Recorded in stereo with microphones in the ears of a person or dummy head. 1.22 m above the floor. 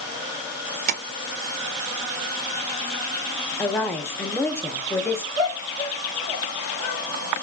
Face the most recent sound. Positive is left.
turn(degrees=60)  # may be behind; listen again after turning